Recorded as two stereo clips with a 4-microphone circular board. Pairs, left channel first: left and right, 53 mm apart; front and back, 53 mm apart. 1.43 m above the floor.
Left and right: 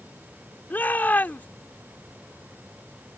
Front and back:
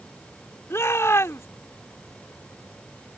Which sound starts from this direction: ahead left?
A shout, at 0.7 s.